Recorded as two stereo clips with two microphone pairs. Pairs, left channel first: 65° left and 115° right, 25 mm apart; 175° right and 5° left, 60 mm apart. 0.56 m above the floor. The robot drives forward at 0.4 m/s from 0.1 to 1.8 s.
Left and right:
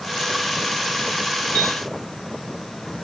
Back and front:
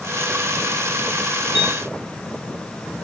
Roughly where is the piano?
Left.